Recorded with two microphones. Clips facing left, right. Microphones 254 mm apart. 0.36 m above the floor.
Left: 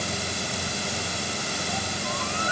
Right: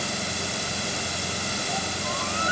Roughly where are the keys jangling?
I don't hear keys jangling.